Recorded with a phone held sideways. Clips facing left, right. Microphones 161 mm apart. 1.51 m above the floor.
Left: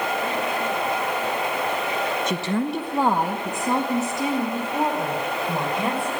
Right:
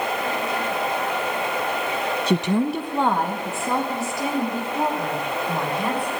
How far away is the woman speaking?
About 0.8 m.